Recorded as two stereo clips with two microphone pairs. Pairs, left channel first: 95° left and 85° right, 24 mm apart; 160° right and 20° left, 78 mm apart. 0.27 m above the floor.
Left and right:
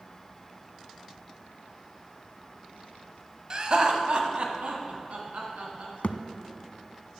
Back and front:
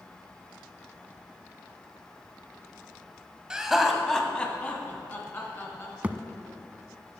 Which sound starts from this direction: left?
A thud, at 6.0 s.